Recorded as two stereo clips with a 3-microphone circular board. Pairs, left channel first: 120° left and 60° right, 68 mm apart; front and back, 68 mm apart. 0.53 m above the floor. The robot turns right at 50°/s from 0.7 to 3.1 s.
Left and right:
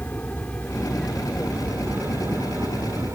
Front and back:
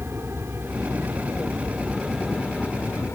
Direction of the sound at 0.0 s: 165° left.